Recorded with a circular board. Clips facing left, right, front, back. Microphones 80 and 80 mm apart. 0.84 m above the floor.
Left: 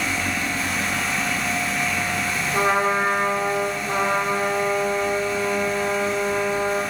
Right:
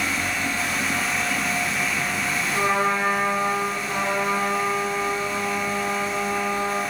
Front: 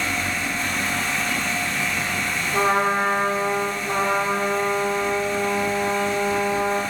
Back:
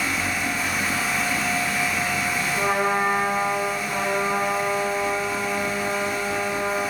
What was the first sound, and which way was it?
A trumpet, 30° left.